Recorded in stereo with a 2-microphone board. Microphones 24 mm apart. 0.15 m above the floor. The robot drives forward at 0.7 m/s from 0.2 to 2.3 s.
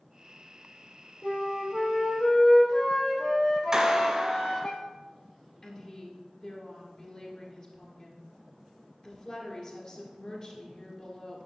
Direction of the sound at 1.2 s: 60° left (ahead or behind).